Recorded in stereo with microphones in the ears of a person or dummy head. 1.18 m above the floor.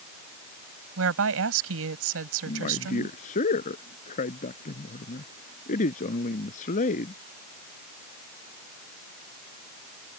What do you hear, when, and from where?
1.0 s a woman speaking: 80° right
2.5 s a man speaking: 45° left (ahead or behind)